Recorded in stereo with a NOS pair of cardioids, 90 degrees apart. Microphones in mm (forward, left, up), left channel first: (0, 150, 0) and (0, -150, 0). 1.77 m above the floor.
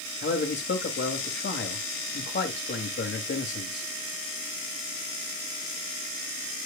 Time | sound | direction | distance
0.2 | a man speaking | 35° left | 3 m